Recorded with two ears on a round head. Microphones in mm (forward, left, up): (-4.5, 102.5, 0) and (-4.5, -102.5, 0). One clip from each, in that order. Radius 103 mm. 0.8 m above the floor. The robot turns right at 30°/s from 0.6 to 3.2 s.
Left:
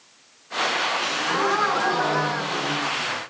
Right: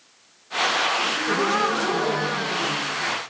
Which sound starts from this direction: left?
A gasp, at 1.0 s.